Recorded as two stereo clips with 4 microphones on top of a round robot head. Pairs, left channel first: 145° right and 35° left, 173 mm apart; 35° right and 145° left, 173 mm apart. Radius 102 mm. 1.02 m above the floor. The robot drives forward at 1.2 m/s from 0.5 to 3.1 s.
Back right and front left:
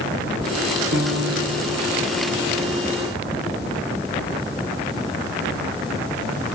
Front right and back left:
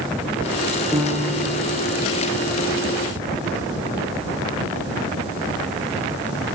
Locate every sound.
0.9 s a piano: 60° left, 7 m; by 2.0 s 70° left, 6.5 m